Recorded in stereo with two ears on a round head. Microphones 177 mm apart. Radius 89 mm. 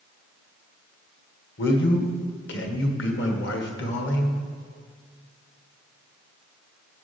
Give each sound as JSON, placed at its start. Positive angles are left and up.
{"t": 1.6, "sound": "a man speaking", "side_deg": 60, "distance_m": 1.6}